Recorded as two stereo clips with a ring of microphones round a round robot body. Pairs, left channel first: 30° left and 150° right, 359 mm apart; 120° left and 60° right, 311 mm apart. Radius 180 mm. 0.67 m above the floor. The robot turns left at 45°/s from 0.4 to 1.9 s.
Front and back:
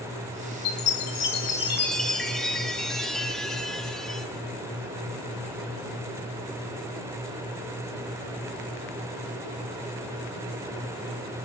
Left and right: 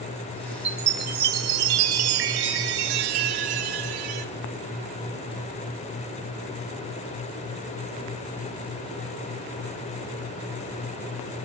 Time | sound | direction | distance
0.7 | a chime | 5° right | 0.8 m